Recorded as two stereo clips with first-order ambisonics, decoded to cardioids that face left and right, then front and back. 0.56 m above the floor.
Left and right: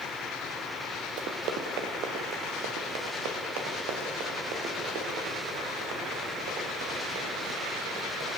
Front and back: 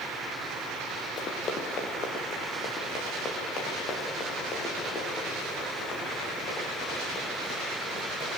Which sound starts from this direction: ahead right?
Running footsteps, at 1.2 s.